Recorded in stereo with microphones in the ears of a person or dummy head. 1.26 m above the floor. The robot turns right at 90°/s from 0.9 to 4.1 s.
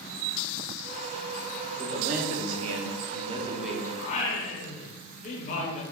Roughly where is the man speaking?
Behind.